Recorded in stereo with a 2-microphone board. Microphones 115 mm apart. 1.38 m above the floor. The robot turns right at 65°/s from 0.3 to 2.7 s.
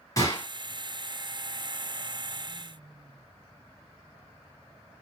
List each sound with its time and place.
0.2 s a gunshot: 30° left (ahead or behind), 2.5 m; by 0.5 s 20° left (ahead or behind), 2.5 m